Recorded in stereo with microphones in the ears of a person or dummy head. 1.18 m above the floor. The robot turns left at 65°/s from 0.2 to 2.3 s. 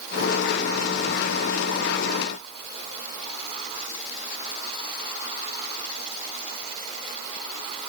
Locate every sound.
Only background noise.